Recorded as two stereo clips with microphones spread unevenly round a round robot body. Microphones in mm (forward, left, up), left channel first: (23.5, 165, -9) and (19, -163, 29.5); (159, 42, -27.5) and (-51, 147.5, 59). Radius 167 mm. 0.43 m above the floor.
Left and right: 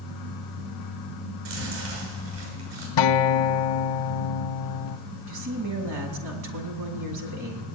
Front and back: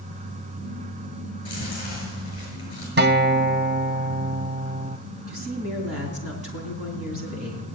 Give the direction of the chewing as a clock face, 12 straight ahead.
3 o'clock.